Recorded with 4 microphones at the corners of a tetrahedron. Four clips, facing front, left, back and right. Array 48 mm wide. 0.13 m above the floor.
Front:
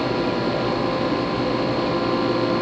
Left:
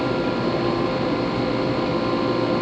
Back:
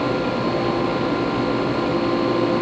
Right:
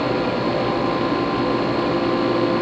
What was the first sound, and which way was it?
Only background noise.